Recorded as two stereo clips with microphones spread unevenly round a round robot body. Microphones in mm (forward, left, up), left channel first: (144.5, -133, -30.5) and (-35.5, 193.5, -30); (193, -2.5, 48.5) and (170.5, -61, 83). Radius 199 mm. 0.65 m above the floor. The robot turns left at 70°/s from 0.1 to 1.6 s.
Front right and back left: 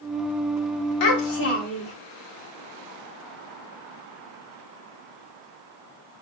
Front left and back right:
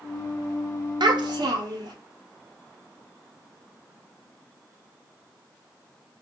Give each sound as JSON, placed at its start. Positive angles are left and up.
{"t": 1.0, "sound": "a child speaking", "azimuth_deg": -85, "distance_m": 0.7}